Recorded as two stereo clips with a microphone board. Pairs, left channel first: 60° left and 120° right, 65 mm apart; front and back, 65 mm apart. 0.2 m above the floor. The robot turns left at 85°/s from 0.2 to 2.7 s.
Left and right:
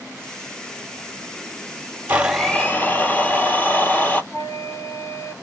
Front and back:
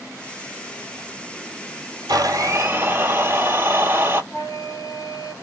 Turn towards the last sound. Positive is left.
turn(degrees=20)